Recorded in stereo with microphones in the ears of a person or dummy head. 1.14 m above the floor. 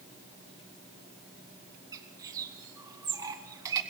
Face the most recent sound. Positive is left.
turn(degrees=-20)  # may be behind; listen again after turning